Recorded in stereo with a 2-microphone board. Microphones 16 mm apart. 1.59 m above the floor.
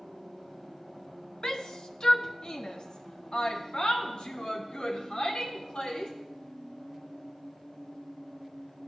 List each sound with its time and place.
1.4 s a shout: 40° left (ahead or behind), 1.8 m; by 6.1 s 60° left (ahead or behind), 5 m